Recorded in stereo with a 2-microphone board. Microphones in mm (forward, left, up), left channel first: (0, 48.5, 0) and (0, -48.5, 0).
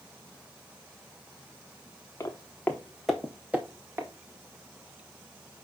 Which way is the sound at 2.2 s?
30° left (ahead or behind).